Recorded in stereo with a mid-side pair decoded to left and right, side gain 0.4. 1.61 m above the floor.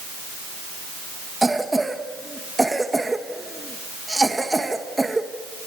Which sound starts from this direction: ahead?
A cough, at 1.4 s.